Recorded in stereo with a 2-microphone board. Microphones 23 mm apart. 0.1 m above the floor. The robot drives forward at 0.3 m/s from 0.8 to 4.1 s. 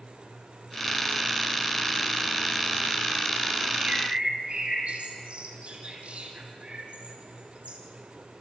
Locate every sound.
3.8 s a bird: 60° right (ahead or behind), 5.5 m